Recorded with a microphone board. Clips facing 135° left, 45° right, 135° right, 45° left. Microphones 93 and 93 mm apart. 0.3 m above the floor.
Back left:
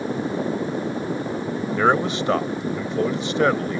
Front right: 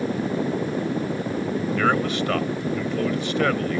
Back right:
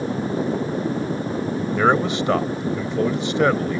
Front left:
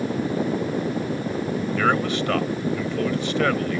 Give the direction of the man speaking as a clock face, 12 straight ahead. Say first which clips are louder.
Back left 4 dB, back right 4 dB; 6 o'clock.